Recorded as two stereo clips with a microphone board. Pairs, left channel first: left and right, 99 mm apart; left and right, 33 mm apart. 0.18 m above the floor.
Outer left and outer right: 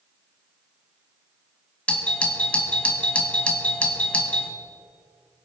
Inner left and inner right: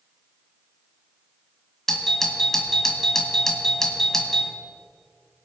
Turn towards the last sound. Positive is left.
turn(degrees=10)  # may be behind; listen again after turning